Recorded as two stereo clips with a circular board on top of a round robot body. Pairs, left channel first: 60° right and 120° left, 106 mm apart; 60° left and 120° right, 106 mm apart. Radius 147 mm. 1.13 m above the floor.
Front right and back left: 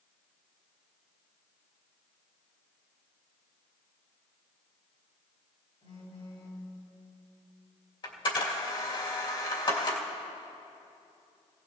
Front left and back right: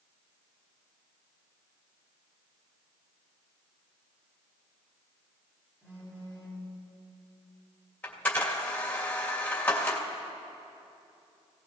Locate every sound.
5.8 s a phone buzzing: 50° right, 6 m
8.0 s a camera shutter: 15° right, 2.5 m